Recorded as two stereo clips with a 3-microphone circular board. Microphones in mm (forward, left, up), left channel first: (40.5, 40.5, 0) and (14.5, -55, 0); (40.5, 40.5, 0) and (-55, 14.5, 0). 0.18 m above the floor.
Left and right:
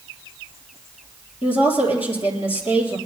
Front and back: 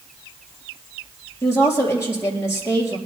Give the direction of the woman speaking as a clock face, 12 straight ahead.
9 o'clock.